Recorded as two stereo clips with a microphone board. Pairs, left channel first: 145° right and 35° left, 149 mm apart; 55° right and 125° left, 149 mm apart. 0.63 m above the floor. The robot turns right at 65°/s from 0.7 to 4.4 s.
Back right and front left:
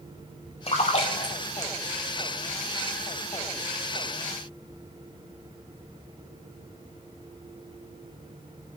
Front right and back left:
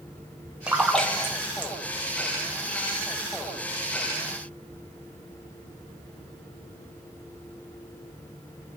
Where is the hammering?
I don't hear hammering.